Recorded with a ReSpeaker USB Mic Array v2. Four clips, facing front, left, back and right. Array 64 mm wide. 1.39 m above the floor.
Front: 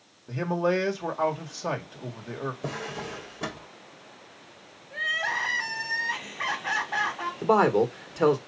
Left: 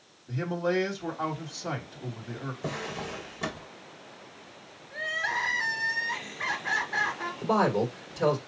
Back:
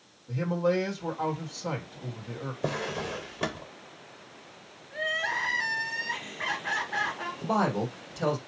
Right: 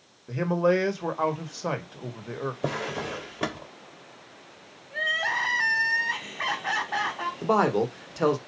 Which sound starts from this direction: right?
A drawer, at 2.6 s.